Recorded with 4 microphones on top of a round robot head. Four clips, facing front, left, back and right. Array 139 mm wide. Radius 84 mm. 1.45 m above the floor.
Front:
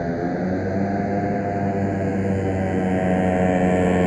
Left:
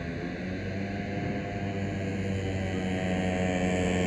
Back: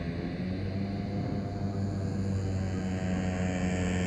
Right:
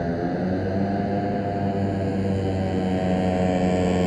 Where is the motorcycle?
35° right; by 4.1 s 15° right.